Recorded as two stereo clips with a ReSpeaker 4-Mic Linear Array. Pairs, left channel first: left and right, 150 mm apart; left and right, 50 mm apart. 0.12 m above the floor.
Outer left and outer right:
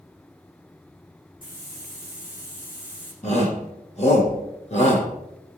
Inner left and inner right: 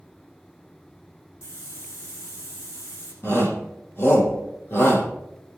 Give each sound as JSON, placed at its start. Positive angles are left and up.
{"t": 1.4, "sound": "a hiss", "side_deg": 70, "distance_m": 5.5}
{"t": 3.2, "sound": "a shout", "side_deg": 50, "distance_m": 5.0}